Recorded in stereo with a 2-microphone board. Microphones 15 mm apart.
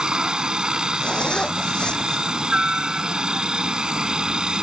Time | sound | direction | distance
0.0 | a helicopter | 50° right (ahead or behind) | ?
1.0 | a zipper | 65° left (ahead or behind) | ?